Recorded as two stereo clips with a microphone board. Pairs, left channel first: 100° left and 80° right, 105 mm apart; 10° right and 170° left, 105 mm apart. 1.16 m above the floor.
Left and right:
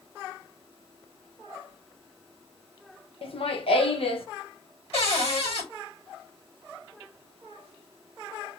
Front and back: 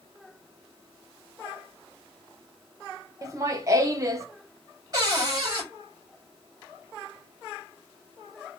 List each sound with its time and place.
3.2 s laughter: 115° left, 0.9 m
4.9 s a cupboard door: 120° left, 4 m